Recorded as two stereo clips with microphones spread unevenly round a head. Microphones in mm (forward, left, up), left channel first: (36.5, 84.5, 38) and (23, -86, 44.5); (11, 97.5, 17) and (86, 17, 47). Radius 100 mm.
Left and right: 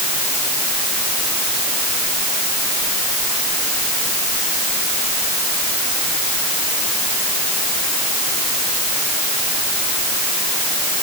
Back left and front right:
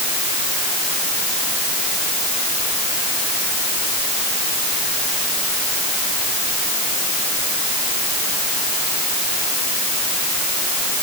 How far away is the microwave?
No microwave in this recording.